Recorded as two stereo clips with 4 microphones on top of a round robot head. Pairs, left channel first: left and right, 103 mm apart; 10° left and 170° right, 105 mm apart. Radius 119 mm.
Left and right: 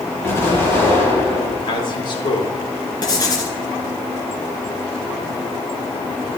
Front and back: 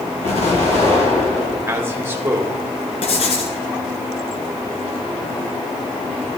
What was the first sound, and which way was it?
An explosion, 25° left.